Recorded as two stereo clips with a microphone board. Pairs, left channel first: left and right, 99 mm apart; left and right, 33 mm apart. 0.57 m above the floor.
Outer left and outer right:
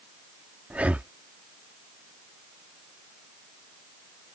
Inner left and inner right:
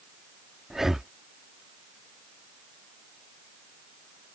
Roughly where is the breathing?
Centre.